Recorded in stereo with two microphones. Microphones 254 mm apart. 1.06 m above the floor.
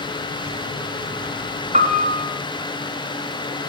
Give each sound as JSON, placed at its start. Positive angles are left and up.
{"t": 1.7, "sound": "a piano", "side_deg": -30, "distance_m": 3.0}